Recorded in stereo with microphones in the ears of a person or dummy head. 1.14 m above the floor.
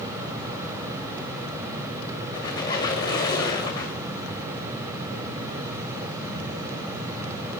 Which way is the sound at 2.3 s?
20° left (ahead or behind).